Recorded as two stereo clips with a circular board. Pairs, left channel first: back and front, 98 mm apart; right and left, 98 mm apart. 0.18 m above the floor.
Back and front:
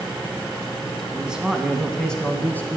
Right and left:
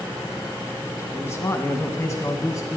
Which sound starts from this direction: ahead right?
A man speaking, at 1.1 s.